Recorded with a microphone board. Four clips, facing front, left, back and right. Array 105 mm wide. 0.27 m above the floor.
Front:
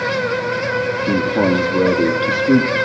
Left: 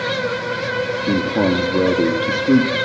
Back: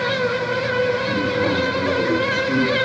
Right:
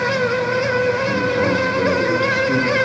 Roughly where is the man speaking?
Ahead left.